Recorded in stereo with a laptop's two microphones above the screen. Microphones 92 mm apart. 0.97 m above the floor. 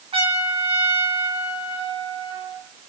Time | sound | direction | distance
0.1 | a trumpet | 85° right | 4 m